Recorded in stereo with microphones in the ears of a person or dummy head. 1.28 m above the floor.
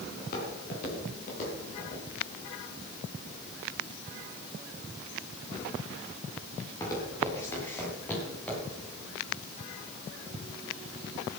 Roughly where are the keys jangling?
No keys jangling in this recording.